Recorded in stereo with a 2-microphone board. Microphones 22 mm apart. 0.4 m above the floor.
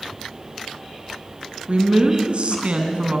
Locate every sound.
1.7 s a woman speaking: 55° right (ahead or behind), 3.5 m